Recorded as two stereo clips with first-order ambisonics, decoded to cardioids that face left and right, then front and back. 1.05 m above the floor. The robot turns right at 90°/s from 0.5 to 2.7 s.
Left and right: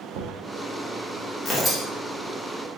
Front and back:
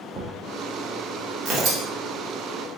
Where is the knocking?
110° right, 0.5 m.